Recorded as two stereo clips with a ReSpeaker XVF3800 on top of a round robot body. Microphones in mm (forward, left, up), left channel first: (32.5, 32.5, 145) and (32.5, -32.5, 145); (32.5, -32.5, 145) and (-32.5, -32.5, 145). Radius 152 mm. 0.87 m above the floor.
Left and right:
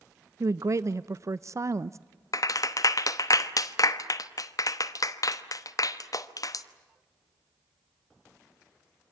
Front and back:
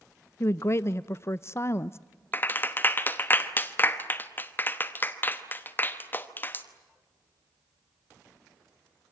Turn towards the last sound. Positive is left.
turn(degrees=60)